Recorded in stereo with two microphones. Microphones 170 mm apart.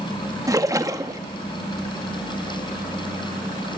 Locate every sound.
0.5 s a splash: 20° right (ahead or behind), 1.1 m